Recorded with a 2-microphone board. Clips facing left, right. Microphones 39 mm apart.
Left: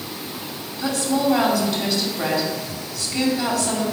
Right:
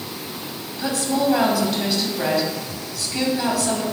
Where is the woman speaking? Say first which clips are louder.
Even; 5° right (ahead or behind), 2 m.